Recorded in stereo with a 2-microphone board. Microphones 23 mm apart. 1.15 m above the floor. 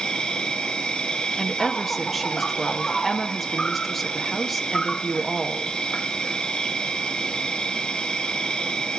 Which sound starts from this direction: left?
An insect, at 0.0 s.